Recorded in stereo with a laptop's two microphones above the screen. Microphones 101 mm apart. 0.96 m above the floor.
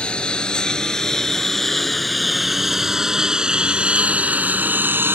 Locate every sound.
0.0 s a lawn mower: 10° left (ahead or behind); by 5.2 s 20° right (ahead or behind)